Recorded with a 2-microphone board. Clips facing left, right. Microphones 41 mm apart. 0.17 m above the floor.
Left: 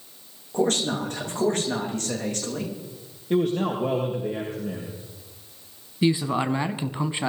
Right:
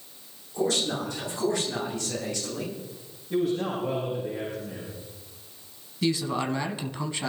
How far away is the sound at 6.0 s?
About 1.1 m.